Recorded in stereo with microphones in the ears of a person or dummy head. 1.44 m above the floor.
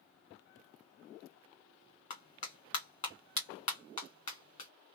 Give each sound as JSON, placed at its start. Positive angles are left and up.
{"t": 2.1, "sound": "a clap", "side_deg": 35, "distance_m": 1.5}